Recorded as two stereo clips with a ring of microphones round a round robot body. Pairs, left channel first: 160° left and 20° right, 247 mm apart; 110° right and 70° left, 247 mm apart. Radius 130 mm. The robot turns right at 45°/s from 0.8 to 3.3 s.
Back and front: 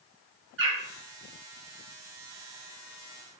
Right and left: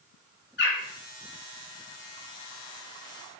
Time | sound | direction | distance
0.6 | a bird | 65° right | 2.5 m